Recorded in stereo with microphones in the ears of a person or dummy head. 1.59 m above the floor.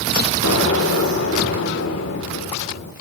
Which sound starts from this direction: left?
An explosion, at 0.4 s.